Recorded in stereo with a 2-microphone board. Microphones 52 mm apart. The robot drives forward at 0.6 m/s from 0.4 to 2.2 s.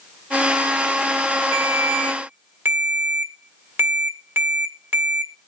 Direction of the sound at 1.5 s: 50° right (ahead or behind).